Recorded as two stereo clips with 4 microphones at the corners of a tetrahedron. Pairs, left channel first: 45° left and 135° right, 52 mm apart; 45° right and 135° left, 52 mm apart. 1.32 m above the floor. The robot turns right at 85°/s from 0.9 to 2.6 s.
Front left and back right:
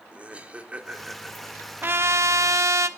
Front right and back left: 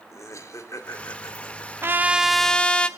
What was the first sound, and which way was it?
Laughter, 65° right.